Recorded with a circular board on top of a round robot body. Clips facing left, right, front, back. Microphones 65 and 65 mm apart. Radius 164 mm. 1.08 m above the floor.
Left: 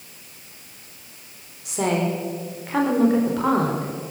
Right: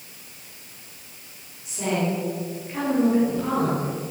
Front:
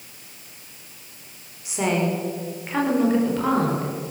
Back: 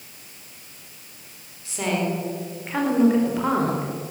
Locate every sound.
1.6 s a woman speaking: 75° left, 4 m; by 3.9 s 105° left, 5 m